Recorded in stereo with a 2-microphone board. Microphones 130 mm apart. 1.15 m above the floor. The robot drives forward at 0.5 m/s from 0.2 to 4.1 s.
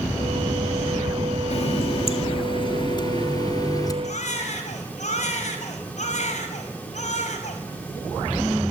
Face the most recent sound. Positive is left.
turn(degrees=60)  # may be behind; listen again after turning